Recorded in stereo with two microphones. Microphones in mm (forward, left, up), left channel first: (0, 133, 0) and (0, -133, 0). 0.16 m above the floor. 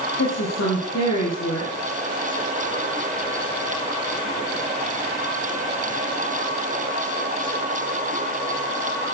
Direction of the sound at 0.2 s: 75° left (ahead or behind).